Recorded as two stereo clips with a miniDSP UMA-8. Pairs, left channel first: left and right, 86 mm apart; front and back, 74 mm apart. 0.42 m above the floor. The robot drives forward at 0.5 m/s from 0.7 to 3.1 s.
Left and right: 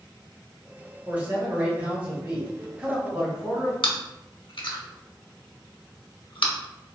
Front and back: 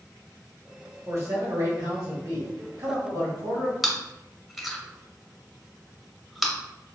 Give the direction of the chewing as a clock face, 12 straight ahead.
9 o'clock.